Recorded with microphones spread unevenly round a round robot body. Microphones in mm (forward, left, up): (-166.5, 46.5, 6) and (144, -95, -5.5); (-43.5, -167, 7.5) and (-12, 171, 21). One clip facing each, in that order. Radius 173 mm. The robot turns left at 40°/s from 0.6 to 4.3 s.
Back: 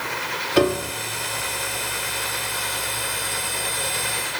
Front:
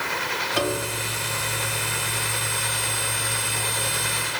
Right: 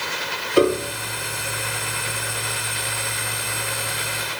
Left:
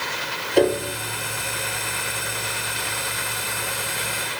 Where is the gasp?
I don't hear a gasp.